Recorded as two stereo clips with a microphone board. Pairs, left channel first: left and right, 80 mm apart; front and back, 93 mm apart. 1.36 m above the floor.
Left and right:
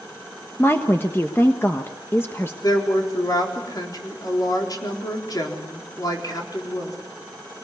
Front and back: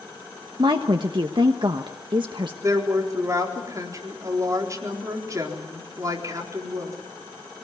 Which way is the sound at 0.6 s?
150° left.